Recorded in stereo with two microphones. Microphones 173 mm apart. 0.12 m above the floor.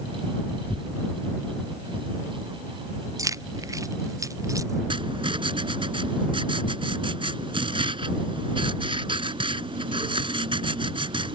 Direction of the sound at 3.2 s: 20° right (ahead or behind).